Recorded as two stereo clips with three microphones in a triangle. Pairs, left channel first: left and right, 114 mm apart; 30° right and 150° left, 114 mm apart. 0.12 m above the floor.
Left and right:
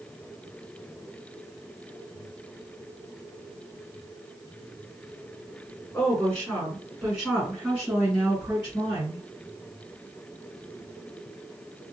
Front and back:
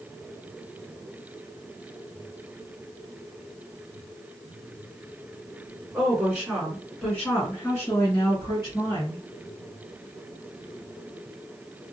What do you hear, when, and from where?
5.9 s a woman speaking: 125° left, 1.6 m; by 9.3 s 40° right, 2 m